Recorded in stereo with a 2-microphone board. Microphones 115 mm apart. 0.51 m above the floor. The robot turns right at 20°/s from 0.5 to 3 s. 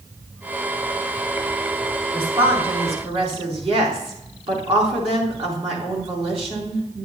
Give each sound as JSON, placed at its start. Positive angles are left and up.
{"t": 2.1, "sound": "a woman speaking", "side_deg": -45, "distance_m": 4.5}